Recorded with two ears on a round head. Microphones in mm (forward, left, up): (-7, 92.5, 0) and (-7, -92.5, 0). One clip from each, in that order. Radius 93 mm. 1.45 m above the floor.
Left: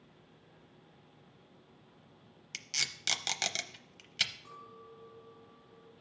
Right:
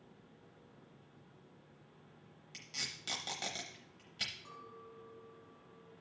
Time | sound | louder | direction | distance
2.5 | tape being pulled | left 7 dB | 65° left (ahead or behind) | 0.8 m
4.5 | a clink | left 2 dB | 5° right (ahead or behind) | 1.3 m